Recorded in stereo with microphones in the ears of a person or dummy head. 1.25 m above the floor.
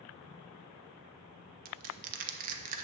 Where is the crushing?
50° right (ahead or behind), 1.1 m.